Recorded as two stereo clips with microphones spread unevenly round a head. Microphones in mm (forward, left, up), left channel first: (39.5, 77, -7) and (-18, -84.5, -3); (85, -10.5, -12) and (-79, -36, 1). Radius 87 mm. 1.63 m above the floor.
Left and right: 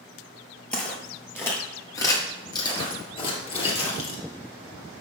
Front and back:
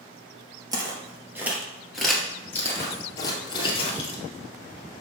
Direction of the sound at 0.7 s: 150° left.